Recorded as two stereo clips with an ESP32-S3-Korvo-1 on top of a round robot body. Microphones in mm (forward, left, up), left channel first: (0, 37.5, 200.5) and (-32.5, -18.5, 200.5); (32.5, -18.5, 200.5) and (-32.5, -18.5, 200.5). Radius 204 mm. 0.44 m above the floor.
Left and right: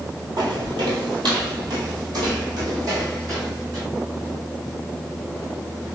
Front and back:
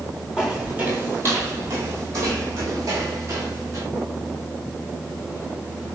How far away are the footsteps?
About 0.9 m.